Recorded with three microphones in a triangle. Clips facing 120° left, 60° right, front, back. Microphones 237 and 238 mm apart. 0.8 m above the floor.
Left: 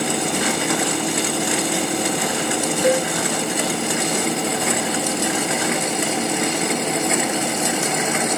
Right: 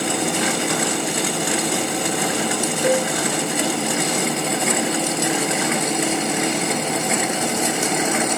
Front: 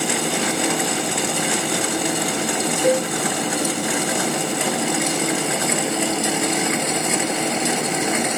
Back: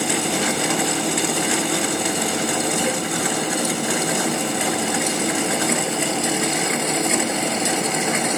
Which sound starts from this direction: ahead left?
A cowbell, at 2.8 s.